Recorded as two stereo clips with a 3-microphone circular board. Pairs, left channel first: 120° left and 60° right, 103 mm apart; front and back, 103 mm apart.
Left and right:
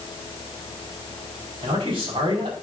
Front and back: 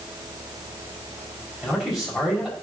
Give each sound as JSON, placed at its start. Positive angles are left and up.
{"t": 1.6, "sound": "a man speaking", "azimuth_deg": -90, "distance_m": 5.0}